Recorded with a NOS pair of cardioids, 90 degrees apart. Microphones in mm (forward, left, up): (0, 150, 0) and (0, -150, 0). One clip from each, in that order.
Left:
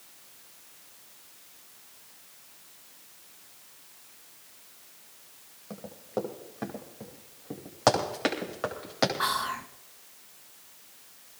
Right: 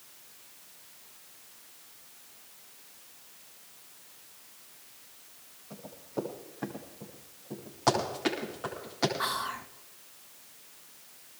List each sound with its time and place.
5.7 s running footsteps: 70° left, 9.5 m; by 8.9 s 55° left, 10.5 m
7.9 s running footsteps: 65° left, 10 m
9.2 s whispering: 15° left, 0.8 m